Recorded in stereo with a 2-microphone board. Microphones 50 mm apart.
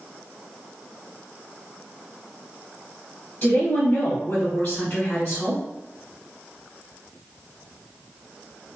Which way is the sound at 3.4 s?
25° left (ahead or behind).